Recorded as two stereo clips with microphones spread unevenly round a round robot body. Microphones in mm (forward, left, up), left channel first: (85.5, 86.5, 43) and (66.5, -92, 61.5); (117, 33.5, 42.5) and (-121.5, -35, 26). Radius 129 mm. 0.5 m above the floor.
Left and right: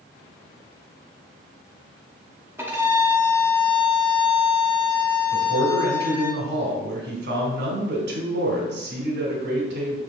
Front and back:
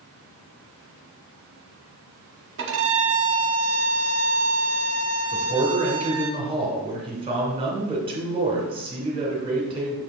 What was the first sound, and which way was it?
A violin, 175° right.